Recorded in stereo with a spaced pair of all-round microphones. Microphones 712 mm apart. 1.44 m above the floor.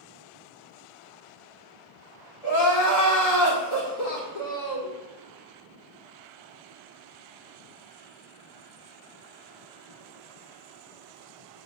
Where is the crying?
60° left (ahead or behind), 2 m.